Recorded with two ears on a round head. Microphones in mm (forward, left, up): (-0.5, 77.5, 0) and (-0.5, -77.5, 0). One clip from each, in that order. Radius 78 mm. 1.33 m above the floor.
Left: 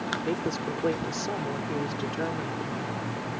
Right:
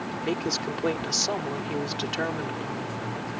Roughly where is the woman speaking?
Right.